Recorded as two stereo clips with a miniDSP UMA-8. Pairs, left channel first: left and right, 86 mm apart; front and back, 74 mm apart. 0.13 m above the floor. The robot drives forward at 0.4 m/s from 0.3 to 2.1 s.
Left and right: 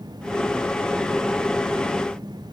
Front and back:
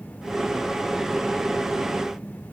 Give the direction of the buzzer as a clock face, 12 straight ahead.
No buzzer in this recording.